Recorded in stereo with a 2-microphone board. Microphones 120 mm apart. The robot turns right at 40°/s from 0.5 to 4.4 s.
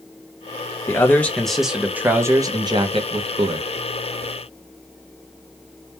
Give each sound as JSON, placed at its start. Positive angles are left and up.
{"t": 0.9, "sound": "a man speaking", "azimuth_deg": 155, "distance_m": 0.6}